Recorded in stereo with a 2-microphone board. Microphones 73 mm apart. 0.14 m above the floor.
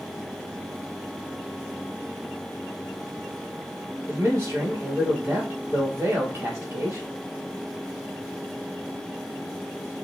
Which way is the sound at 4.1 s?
40° right (ahead or behind).